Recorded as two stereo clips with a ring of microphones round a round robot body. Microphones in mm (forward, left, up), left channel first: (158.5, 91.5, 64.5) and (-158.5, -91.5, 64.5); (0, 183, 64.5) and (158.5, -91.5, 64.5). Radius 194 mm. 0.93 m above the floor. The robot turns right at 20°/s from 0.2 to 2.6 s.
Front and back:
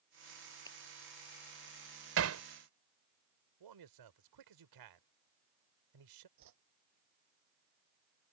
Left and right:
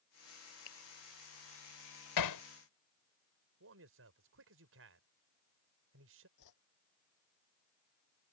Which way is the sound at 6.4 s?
165° left.